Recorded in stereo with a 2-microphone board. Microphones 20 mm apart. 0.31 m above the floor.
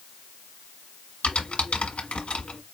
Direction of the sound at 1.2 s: 70° left (ahead or behind).